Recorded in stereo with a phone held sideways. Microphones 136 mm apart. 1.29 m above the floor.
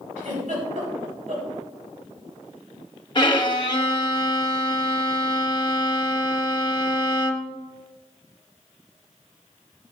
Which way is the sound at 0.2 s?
70° right (ahead or behind).